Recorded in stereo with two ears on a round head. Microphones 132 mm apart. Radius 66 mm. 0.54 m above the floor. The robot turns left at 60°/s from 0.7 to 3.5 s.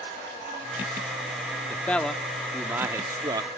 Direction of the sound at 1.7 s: 15° left (ahead or behind).